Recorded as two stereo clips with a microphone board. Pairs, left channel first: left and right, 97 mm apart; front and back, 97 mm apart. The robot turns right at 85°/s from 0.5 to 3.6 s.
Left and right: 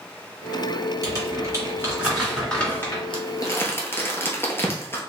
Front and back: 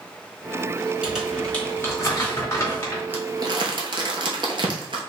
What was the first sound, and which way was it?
Crumpling, 110° right.